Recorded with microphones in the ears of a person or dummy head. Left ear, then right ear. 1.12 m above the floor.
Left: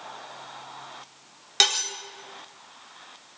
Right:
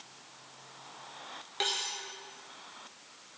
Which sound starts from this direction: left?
Cutlery clinking, at 1.6 s.